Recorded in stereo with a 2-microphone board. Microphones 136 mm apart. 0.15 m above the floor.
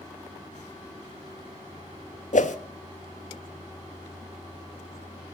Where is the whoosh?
65° left (ahead or behind), 0.6 m.